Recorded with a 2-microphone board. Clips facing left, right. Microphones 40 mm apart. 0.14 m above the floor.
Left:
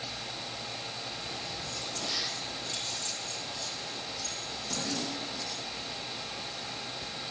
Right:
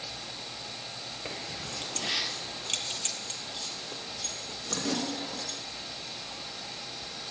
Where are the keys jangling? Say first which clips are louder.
Even; 60° right (ahead or behind), 2 m.